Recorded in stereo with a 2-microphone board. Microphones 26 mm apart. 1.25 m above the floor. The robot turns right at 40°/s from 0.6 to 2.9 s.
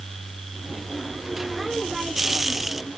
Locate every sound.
Only background noise.